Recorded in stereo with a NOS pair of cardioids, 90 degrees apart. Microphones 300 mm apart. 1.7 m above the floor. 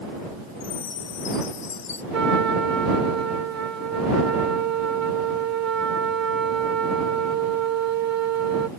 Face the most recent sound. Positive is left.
turn(degrees=-60)